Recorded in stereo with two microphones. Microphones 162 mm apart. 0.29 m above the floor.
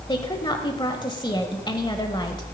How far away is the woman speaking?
About 1.1 m.